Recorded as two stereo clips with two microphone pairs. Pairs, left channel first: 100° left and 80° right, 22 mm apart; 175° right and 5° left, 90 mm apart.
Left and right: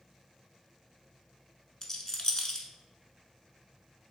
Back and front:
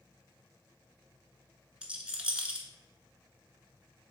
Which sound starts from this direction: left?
A rattle, at 1.8 s.